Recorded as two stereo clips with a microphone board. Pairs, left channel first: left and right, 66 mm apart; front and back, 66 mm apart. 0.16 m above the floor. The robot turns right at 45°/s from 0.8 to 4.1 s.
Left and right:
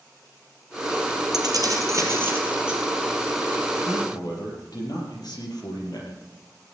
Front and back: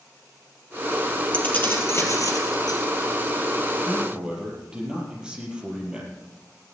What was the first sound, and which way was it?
Keys jangling, 75° right.